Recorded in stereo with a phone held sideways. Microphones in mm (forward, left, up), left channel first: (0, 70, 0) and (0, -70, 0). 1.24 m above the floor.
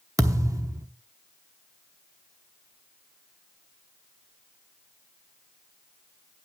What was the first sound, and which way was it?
A thud, 25° right (ahead or behind).